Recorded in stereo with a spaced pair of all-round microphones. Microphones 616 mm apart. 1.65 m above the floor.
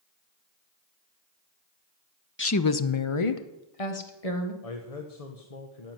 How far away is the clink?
I don't hear a clink.